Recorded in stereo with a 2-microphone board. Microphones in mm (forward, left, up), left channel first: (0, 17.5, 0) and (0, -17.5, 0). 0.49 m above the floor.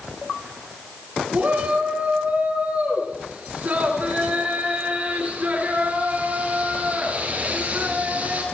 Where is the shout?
55° right (ahead or behind), 4.5 m.